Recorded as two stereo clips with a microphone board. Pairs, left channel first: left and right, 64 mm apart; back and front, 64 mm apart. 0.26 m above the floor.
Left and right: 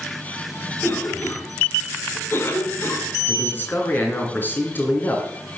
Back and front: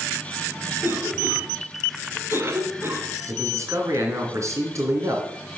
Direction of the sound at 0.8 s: 45° left.